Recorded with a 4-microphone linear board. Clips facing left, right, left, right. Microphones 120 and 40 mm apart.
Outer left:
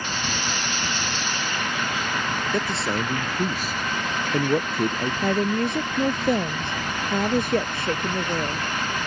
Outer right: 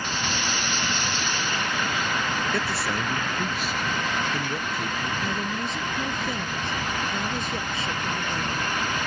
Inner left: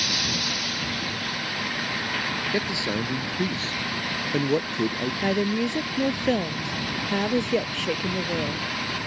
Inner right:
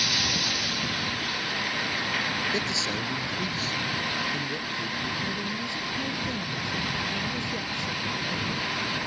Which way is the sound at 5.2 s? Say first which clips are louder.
Outer left 7 dB, inner left 7 dB; 60° left (ahead or behind).